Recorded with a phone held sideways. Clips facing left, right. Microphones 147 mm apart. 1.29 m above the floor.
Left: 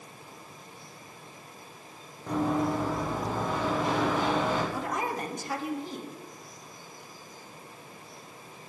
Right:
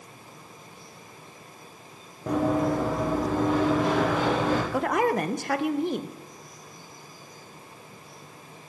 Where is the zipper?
I don't hear a zipper.